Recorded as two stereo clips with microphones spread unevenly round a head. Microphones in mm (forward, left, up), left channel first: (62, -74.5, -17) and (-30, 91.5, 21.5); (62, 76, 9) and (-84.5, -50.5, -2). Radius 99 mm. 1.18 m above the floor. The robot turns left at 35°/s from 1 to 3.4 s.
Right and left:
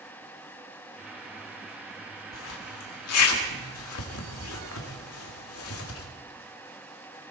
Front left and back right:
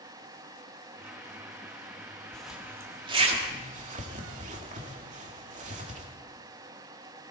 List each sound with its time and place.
2.3 s a zipper: 45° right, 1.8 m; by 6.1 s 80° right, 1.8 m